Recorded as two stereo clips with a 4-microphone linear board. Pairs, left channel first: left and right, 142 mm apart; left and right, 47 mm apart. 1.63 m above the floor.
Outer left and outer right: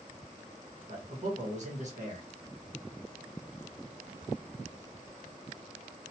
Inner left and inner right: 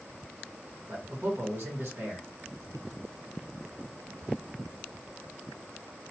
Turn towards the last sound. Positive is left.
turn(degrees=-55)  # may be behind; listen again after turning